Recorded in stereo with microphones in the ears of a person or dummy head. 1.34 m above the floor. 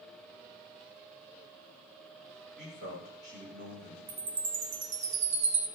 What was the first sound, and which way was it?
A man speaking, 50° right (ahead or behind).